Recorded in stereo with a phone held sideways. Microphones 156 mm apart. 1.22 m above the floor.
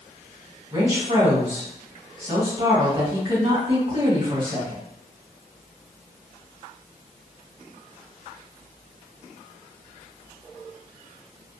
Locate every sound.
0.7 s a woman speaking: 55° right (ahead or behind), 1.5 m